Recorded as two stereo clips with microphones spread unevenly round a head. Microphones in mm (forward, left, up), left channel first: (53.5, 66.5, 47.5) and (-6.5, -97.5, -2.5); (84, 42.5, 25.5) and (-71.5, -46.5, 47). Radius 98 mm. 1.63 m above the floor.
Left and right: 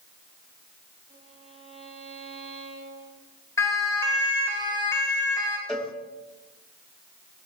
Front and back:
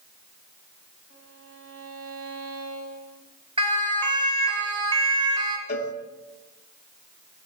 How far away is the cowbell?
About 2.5 m.